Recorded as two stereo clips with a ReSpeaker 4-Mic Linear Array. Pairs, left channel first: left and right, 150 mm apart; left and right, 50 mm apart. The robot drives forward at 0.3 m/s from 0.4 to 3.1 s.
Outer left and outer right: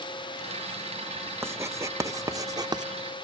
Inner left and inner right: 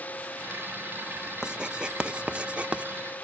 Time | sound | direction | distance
1.4 | writing | 15° right (ahead or behind) | 1.0 m